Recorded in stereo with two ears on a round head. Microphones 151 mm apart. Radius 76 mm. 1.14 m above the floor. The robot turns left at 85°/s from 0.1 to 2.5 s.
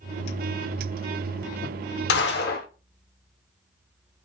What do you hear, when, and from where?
2.1 s a gunshot: 100° left, 0.8 m; by 2.7 s 65° left, 0.8 m